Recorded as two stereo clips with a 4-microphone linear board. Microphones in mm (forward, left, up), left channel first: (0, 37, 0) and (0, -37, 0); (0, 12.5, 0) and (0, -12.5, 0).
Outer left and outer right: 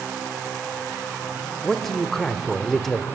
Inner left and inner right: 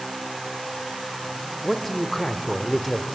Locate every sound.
1.6 s a man speaking: centre (ahead or behind), 1.2 m